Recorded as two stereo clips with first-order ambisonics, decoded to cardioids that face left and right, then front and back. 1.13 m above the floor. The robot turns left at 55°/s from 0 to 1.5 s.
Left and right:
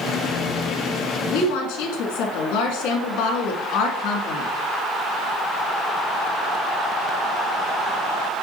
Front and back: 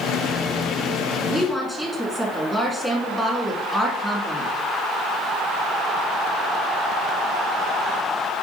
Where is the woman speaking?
110° left, 2 m; by 4.5 s 100° left, 2 m.